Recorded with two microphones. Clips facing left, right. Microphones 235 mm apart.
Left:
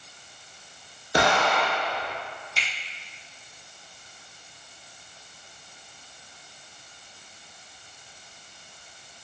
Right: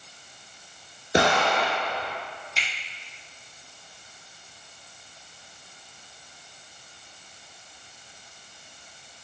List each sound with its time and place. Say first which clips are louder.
1.1 s an explosion: right 1 dB; 25° right (ahead or behind), 1.0 m
2.6 s a finger snap: even; centre (ahead or behind), 1.2 m